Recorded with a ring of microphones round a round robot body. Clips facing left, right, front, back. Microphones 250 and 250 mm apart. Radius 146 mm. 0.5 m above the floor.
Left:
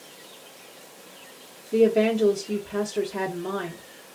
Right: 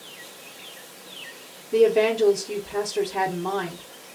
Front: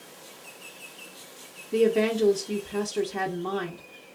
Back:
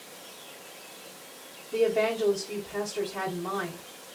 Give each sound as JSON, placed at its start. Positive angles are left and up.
{"t": 1.7, "sound": "a woman speaking", "azimuth_deg": 5, "distance_m": 0.8}